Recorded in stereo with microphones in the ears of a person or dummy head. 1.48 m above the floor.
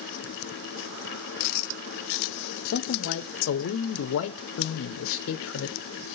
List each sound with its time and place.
2.6 s a man speaking: 70° left (ahead or behind), 0.6 m